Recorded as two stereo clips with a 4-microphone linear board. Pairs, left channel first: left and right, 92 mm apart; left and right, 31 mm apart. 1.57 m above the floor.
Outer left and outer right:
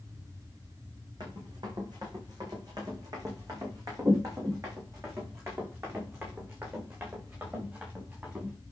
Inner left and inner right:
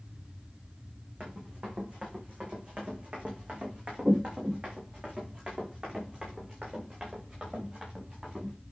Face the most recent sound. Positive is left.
turn(degrees=-20)  # may be behind; listen again after turning